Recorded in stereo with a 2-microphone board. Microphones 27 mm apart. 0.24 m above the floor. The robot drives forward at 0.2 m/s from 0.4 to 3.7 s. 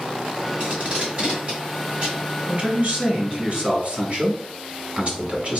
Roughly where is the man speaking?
Right.